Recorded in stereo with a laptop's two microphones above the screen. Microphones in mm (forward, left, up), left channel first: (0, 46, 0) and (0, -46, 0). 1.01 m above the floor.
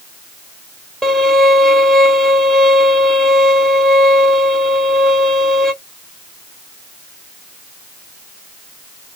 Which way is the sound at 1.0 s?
5° left (ahead or behind).